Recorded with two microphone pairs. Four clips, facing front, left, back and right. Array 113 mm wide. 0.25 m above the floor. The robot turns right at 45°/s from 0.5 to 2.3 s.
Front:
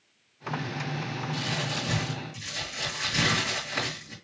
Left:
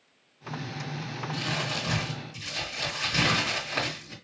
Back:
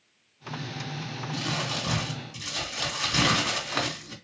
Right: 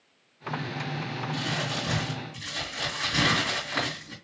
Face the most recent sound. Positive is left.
turn(degrees=-175)